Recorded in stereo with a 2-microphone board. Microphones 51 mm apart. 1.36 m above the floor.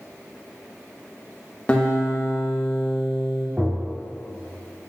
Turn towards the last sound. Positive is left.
turn(degrees=-30)  # may be behind; listen again after turning